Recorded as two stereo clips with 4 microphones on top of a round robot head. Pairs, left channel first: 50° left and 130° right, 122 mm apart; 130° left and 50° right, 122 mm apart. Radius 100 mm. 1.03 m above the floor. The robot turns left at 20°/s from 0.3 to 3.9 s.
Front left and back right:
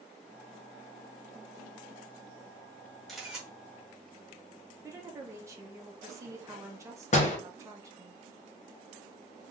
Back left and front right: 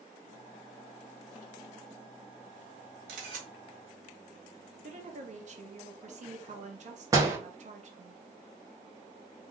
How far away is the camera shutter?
About 2.0 m.